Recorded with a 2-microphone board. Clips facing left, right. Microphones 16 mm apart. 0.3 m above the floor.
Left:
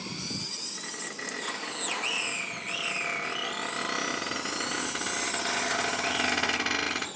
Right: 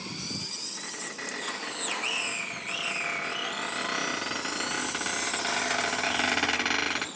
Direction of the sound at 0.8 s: 50° right (ahead or behind).